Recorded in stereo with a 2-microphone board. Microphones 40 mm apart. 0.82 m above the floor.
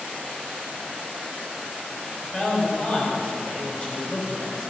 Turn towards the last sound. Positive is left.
turn(degrees=35)  # may be behind; listen again after turning